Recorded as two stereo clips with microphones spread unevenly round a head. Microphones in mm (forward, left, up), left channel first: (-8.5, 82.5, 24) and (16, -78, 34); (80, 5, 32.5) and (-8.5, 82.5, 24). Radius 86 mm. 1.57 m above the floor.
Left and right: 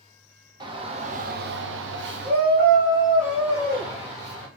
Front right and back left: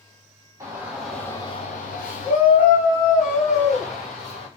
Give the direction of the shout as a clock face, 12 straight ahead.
5 o'clock.